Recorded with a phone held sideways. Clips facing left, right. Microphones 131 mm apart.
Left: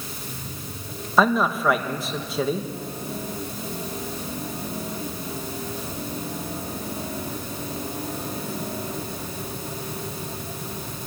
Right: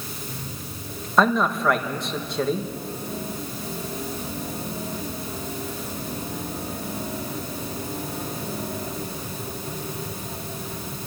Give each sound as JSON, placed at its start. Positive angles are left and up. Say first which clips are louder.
{"t": 1.2, "sound": "a man speaking", "louder": "even", "side_deg": 5, "distance_m": 1.6}